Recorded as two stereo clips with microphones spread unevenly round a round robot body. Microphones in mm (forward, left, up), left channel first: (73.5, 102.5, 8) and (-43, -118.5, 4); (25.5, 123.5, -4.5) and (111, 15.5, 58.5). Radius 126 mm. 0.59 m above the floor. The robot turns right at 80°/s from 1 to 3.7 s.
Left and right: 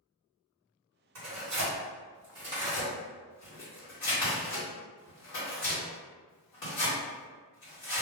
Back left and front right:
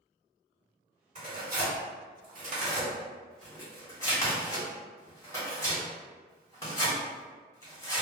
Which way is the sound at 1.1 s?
120° right.